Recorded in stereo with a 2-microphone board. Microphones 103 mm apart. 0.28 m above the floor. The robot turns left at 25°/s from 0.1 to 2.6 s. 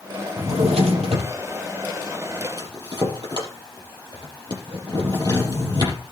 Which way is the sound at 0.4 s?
80° right.